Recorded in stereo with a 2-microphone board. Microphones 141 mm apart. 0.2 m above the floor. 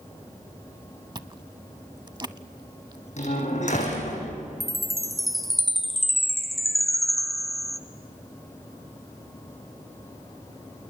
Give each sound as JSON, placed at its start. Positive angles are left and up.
{"t": 1.1, "sound": "chewing", "side_deg": -30, "distance_m": 0.6}
{"t": 3.2, "sound": "a door slam", "side_deg": 55, "distance_m": 8.5}
{"t": 4.6, "sound": "a chime", "side_deg": 0, "distance_m": 2.0}